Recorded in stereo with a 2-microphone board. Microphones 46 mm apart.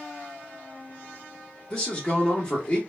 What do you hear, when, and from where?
1.7 s a man speaking: 20° left (ahead or behind), 1.4 m